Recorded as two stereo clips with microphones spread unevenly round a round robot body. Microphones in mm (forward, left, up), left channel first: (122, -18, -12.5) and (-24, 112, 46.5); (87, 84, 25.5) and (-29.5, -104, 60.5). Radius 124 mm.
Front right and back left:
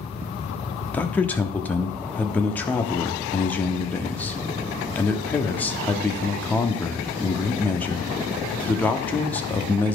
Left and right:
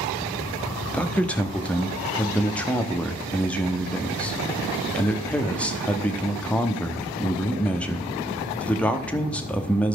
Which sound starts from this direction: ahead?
A man speaking, at 0.9 s.